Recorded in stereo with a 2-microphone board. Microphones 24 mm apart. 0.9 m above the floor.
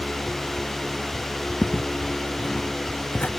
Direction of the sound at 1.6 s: 60° left (ahead or behind).